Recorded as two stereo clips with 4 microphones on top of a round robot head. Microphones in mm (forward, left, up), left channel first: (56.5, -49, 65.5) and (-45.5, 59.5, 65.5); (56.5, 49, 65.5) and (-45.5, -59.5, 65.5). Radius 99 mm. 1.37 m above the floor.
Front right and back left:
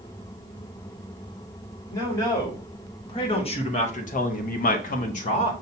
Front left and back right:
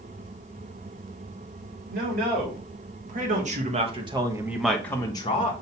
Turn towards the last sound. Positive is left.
turn(degrees=0)